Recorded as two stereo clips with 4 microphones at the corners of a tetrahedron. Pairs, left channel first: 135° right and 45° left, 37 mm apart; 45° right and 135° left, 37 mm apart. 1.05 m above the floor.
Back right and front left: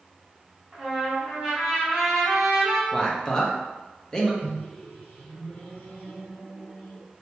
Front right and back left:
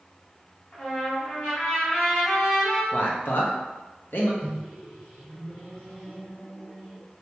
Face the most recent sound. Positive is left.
turn(degrees=-110)